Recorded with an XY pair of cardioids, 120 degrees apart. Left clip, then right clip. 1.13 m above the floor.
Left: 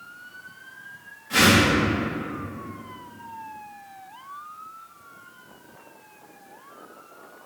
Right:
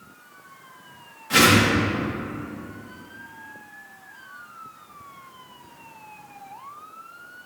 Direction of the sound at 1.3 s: 40° right.